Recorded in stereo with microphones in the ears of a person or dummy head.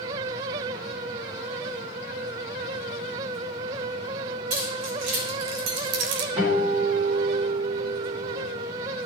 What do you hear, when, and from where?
4.5 s keys jangling: 60° right (ahead or behind), 3 m; by 6.3 s 50° right (ahead or behind), 0.5 m
6.4 s a guitar: 35° right (ahead or behind), 4.5 m